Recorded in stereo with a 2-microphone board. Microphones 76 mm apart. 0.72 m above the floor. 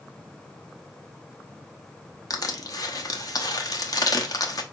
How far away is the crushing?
About 0.8 m.